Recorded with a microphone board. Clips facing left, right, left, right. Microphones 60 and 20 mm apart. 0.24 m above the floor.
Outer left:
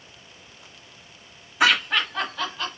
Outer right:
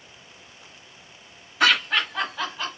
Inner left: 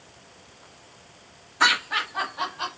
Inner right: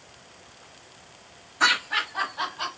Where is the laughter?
10° left (ahead or behind), 1.1 m; by 2.8 s 10° right (ahead or behind), 1.6 m.